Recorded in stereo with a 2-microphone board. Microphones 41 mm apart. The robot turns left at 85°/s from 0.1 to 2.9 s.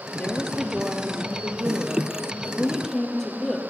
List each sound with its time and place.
0.2 s a woman speaking: 40° left, 4 m; by 3.6 s 170° left, 4 m